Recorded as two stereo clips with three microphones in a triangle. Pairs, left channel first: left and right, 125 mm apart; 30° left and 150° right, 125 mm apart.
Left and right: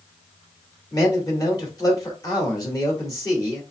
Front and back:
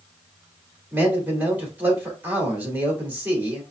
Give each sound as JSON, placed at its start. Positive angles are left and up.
{"t": 0.9, "sound": "a man speaking", "azimuth_deg": 140, "distance_m": 1.6}